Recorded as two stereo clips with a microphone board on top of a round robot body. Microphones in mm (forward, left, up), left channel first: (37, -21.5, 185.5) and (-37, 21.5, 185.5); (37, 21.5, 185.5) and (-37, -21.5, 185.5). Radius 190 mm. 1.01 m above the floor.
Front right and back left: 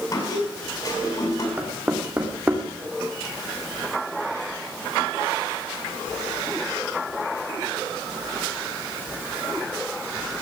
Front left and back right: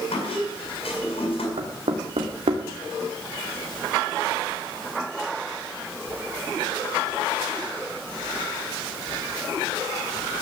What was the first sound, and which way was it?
A squeak, 15° left.